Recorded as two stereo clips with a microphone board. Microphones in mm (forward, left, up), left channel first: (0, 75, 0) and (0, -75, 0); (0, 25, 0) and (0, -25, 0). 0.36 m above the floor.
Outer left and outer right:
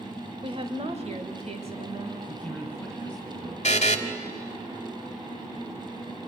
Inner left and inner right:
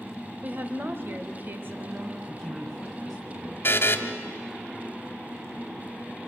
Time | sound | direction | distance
0.4 | a woman speaking | 35° right (ahead or behind) | 1.0 m
2.3 | a man speaking | 5° left (ahead or behind) | 2.5 m
3.6 | a buzzer | 50° left (ahead or behind) | 1.2 m